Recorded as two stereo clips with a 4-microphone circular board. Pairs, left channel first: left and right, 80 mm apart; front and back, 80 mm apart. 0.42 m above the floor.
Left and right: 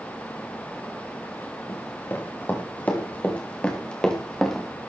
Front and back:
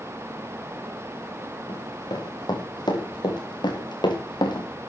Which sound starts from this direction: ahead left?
Running footsteps, at 1.7 s.